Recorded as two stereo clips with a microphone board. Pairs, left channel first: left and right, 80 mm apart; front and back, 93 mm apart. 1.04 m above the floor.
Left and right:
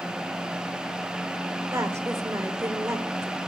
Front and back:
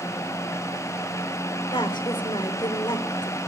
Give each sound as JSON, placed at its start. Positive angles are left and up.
{"t": 1.7, "sound": "a woman speaking", "azimuth_deg": -35, "distance_m": 3.0}